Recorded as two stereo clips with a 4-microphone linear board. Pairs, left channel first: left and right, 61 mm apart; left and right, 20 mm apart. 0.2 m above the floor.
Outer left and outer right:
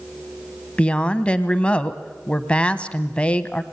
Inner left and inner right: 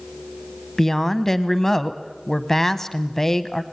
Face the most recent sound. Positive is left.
turn(degrees=20)  # may be behind; listen again after turning